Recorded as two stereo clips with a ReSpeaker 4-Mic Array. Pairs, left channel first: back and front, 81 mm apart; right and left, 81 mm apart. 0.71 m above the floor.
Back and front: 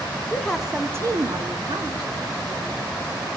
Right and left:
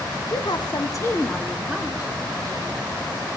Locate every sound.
0.3 s a woman speaking: 105° right, 1.4 m; by 2.9 s 30° left, 3 m